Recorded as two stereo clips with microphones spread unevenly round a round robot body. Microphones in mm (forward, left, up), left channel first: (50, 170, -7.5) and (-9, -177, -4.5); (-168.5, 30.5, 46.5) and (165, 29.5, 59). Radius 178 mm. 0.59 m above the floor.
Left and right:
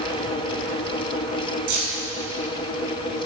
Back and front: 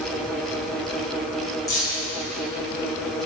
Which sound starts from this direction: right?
Keys jangling, at 1.7 s.